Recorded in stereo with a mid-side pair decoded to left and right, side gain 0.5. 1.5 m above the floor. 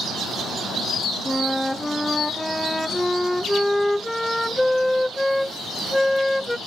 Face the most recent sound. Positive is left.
turn(degrees=10)